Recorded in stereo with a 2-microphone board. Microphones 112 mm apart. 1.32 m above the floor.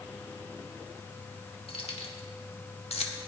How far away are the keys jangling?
About 1.9 m.